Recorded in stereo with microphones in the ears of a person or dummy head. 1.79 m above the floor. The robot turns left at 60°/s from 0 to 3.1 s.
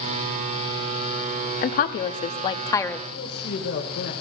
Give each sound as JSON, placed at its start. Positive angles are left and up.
{"t": 1.6, "sound": "a woman speaking", "azimuth_deg": 105, "distance_m": 0.6}
{"t": 3.1, "sound": "a man speaking", "side_deg": 50, "distance_m": 1.4}